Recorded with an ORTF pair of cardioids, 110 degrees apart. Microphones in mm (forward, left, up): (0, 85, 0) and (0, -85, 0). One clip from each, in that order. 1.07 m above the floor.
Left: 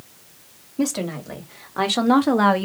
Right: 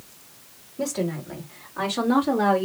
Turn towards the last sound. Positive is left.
turn(degrees=60)